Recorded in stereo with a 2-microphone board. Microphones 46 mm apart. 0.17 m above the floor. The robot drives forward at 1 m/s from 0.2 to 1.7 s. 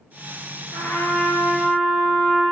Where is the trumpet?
65° left (ahead or behind), 0.7 m; by 2.4 s 25° left (ahead or behind), 1.3 m.